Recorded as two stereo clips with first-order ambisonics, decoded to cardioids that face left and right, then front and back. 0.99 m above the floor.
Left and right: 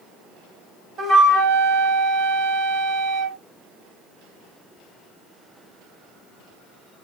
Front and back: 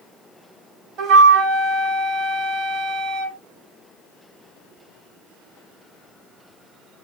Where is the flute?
140° right, 1.6 m.